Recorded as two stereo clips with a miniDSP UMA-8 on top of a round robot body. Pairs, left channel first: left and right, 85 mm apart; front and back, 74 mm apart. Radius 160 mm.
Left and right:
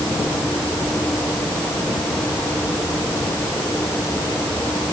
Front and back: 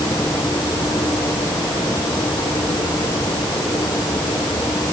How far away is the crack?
I don't hear a crack.